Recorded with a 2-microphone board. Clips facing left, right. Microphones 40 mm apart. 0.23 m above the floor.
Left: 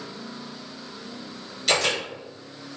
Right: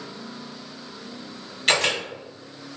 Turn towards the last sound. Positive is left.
turn(degrees=-50)  # may be behind; listen again after turning